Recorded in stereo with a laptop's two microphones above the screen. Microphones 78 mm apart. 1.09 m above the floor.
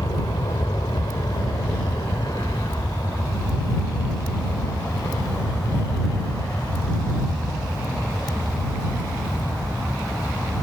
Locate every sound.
0.0 s an aircraft: 65° left (ahead or behind); by 10.6 s 35° left (ahead or behind)